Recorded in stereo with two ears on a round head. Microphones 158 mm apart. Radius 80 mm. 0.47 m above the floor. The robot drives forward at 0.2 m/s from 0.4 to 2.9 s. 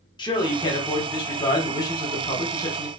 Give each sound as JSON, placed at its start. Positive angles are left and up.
{"t": 0.2, "sound": "a man speaking", "side_deg": 25, "distance_m": 1.0}